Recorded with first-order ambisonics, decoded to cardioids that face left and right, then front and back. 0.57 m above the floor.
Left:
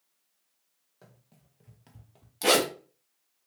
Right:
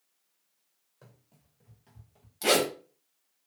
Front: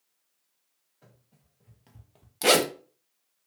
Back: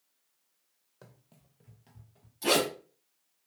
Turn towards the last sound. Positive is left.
turn(degrees=10)